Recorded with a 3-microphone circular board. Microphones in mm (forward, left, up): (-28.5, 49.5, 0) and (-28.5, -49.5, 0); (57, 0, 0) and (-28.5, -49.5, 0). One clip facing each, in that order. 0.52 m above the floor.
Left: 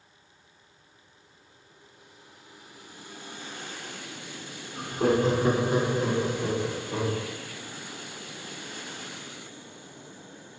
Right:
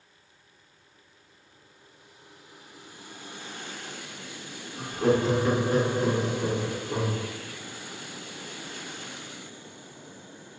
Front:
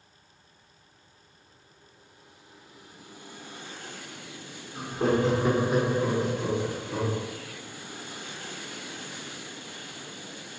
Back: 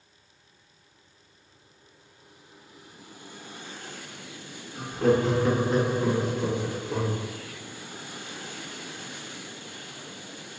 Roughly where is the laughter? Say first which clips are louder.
Even, back 2 dB; left.